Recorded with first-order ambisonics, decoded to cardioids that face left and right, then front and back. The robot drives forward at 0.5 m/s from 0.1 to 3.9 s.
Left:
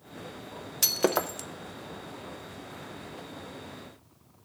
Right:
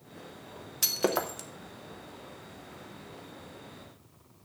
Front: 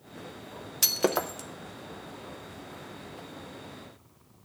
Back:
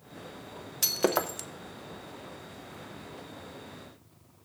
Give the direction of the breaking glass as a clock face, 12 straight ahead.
11 o'clock.